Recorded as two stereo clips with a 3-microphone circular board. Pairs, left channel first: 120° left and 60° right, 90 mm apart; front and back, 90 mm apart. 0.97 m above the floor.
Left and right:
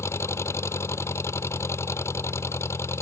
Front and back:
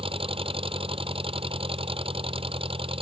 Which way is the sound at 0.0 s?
Straight behind.